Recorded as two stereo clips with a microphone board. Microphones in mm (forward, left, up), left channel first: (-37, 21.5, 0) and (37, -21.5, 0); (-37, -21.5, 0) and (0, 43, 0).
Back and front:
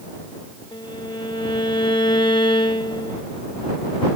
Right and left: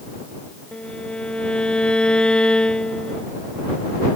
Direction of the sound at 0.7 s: 165° left.